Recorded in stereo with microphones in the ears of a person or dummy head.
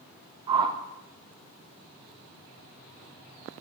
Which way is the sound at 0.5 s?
30° right (ahead or behind).